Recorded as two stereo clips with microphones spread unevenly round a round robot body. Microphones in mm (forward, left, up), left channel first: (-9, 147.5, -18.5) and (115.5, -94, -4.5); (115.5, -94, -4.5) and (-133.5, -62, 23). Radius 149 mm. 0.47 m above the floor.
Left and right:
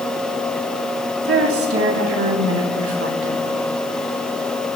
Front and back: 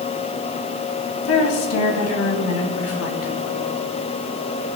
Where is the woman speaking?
20° right, 3 m; by 3.7 s 35° right, 4 m.